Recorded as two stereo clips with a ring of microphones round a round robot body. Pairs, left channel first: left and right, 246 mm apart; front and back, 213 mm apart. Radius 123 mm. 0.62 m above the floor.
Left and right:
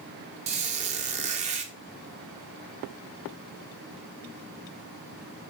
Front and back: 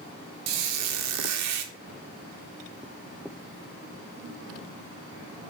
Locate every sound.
0.5 s a squeak: 155° right, 0.5 m